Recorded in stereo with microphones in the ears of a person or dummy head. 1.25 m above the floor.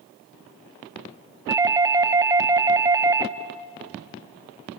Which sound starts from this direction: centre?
A doorbell, at 1.5 s.